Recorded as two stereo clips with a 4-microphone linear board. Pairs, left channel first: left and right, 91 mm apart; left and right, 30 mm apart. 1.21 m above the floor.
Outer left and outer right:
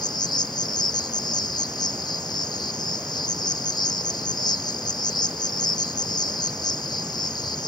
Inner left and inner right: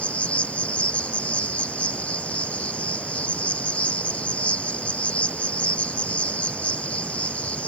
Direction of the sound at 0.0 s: 50° left (ahead or behind).